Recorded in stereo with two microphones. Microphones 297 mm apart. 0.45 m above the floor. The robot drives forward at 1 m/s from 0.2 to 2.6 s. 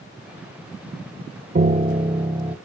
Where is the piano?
35° right (ahead or behind), 0.6 m; by 2.5 s 15° right (ahead or behind), 1.5 m.